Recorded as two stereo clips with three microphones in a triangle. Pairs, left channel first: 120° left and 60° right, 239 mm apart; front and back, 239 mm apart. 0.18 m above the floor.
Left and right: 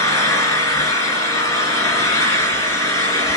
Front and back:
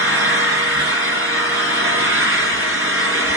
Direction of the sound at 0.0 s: 165° right.